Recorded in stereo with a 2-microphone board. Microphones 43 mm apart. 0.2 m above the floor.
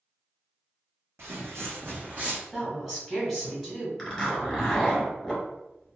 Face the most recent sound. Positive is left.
turn(degrees=10)  # may be behind; listen again after turning